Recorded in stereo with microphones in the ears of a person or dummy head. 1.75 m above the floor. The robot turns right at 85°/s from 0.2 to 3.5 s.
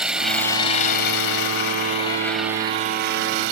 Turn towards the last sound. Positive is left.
turn(degrees=-85)